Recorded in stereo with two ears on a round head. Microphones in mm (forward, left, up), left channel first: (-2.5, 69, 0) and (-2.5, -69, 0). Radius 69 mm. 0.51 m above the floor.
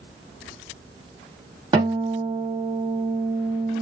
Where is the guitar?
25° right (ahead or behind), 1.5 m.